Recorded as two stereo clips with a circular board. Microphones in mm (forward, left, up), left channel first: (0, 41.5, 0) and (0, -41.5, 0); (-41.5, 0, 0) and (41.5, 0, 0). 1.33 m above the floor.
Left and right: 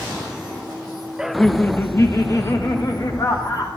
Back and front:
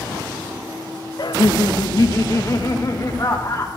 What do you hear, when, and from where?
1.2 s laughter: 165° right, 0.8 m; by 3.7 s 130° left, 4 m